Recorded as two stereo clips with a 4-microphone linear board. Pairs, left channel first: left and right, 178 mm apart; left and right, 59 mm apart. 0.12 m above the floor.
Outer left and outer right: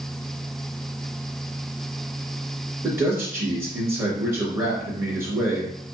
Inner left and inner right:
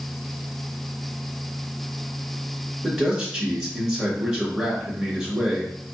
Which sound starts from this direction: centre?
A man speaking, at 2.8 s.